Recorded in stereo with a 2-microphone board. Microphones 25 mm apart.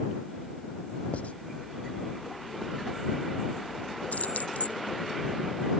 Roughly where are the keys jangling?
Left.